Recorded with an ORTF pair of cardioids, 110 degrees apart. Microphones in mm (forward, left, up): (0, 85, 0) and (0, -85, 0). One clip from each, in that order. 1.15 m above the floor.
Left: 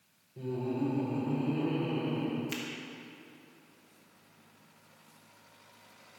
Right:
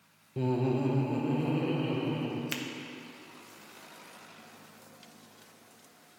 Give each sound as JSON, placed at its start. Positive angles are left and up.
{"t": 0.4, "sound": "laughter", "azimuth_deg": -65, "distance_m": 0.6}
{"t": 2.5, "sound": "a finger snap", "azimuth_deg": -35, "distance_m": 1.0}